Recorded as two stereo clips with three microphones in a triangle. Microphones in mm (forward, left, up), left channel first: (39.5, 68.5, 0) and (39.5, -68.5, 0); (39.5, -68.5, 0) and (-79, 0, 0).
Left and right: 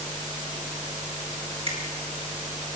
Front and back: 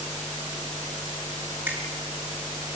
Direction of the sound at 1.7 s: 135° right.